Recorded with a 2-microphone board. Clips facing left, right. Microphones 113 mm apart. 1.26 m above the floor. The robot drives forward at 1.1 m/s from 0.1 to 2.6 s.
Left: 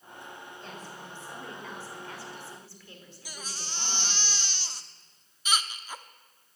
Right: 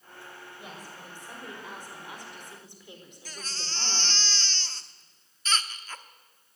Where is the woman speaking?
10° right (ahead or behind), 6.5 m; by 4.2 s 20° right (ahead or behind), 4.5 m.